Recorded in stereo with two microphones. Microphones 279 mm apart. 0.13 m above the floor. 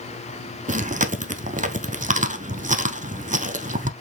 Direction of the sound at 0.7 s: 30° right (ahead or behind).